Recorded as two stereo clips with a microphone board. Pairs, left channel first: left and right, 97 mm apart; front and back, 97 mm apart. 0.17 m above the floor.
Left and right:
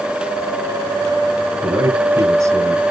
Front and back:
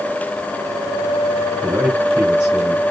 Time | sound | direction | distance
1.6 | a man speaking | 110° right | 2 m